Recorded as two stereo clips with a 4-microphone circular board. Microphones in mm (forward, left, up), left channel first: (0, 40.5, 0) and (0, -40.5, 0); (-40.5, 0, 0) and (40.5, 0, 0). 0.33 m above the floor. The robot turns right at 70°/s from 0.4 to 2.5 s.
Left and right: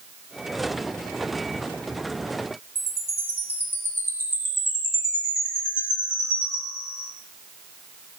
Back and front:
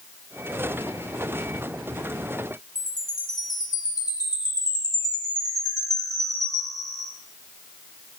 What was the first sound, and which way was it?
A chime, 145° left.